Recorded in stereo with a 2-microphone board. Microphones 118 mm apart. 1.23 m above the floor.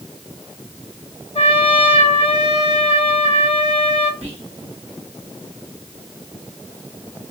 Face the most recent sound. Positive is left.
turn(degrees=-65)  # may be behind; listen again after turning